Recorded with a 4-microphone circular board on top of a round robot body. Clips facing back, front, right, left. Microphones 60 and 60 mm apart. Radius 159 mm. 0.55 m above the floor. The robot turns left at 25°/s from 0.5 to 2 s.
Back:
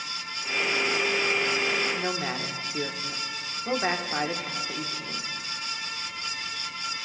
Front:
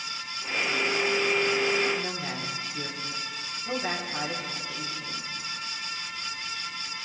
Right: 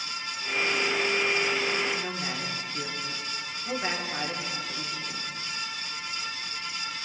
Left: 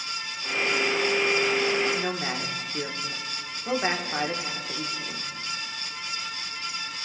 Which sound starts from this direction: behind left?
A man speaking, at 1.9 s.